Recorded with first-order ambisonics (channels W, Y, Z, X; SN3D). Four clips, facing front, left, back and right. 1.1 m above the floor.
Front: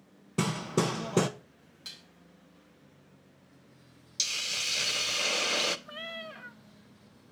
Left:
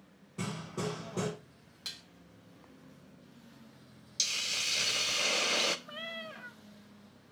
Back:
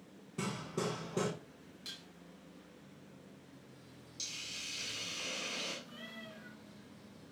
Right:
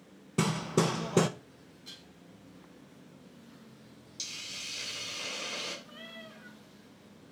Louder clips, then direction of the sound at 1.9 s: Left 6 dB, front 2 dB; 80° left.